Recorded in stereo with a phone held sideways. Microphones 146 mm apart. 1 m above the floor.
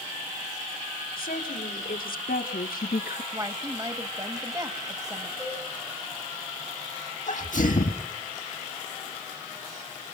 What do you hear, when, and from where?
1.2 s a woman speaking: 80° left, 3 m; by 3.2 s 75° left (ahead or behind), 0.7 m
3.3 s a woman speaking: 25° right (ahead or behind), 1.6 m
5.4 s a cowbell: 15° right (ahead or behind), 8 m
7.3 s a sneeze: 65° left (ahead or behind), 1.5 m